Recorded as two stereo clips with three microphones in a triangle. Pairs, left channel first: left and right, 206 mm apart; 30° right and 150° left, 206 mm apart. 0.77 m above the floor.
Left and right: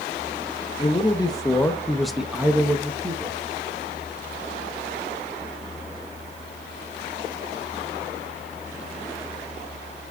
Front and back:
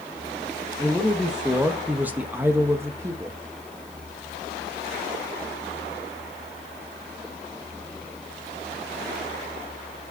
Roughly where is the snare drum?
No snare drum in this recording.